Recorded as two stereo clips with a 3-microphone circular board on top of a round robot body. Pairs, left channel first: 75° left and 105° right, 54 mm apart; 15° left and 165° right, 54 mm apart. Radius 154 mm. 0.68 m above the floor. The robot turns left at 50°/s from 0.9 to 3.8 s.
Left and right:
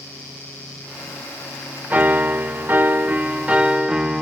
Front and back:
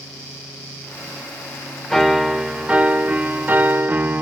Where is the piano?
70° right, 0.8 m; by 4.2 s 165° right, 0.8 m.